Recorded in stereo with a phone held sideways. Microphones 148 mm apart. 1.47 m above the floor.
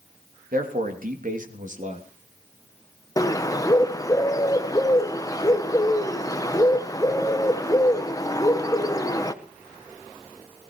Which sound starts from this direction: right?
A man speaking, at 0.5 s.